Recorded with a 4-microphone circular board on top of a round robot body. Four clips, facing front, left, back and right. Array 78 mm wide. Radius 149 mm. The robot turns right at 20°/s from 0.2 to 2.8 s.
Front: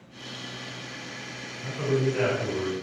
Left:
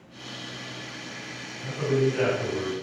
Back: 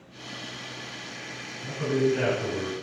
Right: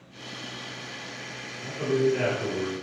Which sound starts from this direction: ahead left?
A man speaking, at 1.6 s.